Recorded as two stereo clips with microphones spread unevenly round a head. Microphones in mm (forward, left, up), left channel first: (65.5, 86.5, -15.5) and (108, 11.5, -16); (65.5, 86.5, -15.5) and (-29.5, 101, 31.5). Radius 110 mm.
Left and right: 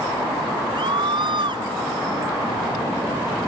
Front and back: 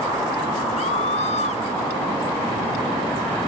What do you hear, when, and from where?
0.8 s a scream: 35° right